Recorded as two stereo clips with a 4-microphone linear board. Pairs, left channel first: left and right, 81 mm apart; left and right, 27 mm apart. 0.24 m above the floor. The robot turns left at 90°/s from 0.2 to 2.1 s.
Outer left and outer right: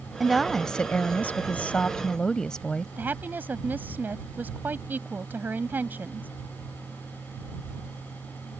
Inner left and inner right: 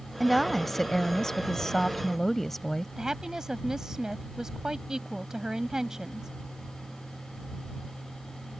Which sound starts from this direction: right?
A woman speaking, at 3.0 s.